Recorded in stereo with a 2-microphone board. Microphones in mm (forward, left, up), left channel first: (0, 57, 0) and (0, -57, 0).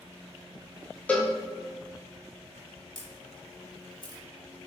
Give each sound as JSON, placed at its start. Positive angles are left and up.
{"t": 1.1, "sound": "a cowbell", "side_deg": 15, "distance_m": 0.8}
{"t": 3.0, "sound": "a camera shutter", "side_deg": 40, "distance_m": 0.9}